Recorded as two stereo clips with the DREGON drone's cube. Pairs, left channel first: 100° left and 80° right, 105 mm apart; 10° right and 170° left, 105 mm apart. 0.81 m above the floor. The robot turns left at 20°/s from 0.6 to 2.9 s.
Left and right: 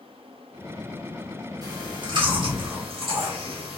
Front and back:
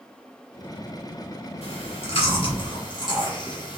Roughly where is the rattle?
I don't hear a rattle.